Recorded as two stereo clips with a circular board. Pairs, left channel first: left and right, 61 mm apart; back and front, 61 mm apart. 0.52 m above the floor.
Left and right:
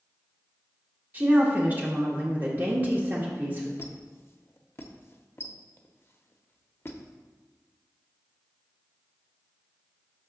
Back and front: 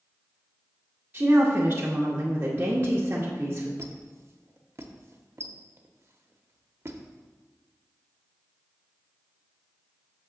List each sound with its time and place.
1.1 s a woman speaking: 40° right, 0.9 m
3.8 s a squeak: 40° left, 0.5 m